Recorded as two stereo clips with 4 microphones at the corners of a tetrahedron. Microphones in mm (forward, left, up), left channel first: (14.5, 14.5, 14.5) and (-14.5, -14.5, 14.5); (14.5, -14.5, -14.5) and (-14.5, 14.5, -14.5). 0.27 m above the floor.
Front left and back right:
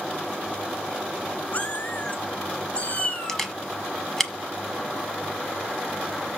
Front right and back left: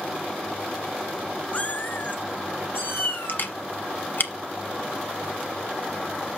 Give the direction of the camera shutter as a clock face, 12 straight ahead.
1 o'clock.